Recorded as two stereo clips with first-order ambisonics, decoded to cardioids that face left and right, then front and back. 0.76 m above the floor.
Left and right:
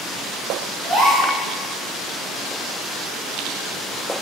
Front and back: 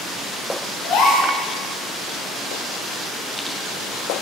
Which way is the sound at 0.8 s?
30° right.